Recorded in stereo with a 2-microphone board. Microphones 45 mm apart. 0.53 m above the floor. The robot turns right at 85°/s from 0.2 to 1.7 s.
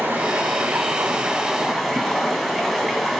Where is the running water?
130° right, 3 m; by 3.2 s 5° right, 3 m.